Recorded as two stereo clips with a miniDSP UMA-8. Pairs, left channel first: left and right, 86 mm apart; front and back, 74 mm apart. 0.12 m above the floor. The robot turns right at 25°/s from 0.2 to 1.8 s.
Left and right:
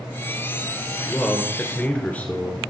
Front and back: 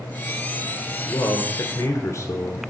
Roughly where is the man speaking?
Ahead.